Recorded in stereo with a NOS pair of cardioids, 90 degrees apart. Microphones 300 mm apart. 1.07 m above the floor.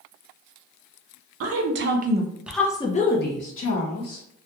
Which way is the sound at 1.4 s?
55° right.